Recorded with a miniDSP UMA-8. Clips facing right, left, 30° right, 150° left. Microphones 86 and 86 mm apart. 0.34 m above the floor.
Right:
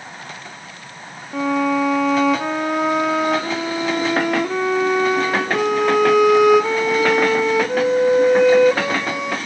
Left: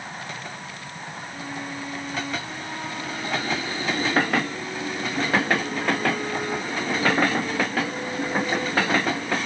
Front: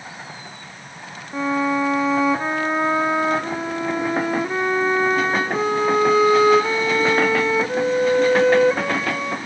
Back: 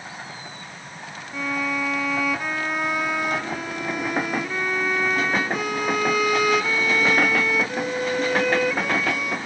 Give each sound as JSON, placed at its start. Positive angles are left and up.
{"t": 1.3, "sound": "a violin", "azimuth_deg": -90}